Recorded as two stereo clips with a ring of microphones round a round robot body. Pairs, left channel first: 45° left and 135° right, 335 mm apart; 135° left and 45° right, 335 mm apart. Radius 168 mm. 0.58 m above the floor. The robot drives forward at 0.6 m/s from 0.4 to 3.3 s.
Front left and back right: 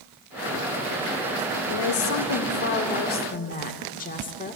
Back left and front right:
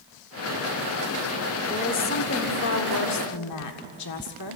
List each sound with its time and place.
1.7 s a woman speaking: 70° left, 1.6 m; by 4.6 s 110° left, 1.6 m